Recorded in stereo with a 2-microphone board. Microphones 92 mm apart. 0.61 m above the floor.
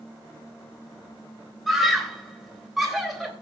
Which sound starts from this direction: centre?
A scream, at 1.7 s.